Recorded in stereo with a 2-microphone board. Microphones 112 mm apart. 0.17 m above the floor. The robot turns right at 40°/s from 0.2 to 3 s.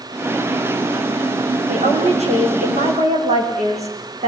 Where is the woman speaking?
130° right, 8.5 m; by 4.3 s 75° right, 8.5 m.